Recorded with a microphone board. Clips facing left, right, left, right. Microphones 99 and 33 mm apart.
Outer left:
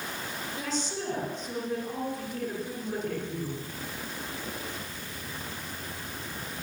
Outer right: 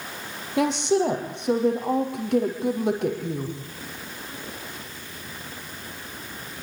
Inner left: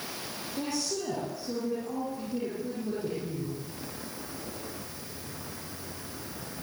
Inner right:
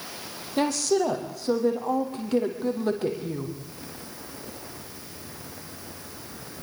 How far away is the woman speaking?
About 7 m.